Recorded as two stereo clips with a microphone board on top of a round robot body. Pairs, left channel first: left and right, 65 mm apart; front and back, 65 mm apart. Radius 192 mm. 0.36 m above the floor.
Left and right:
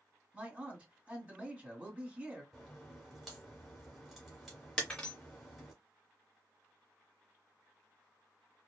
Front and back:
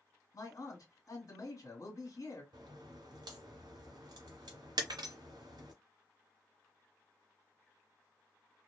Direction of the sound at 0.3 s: 25° right.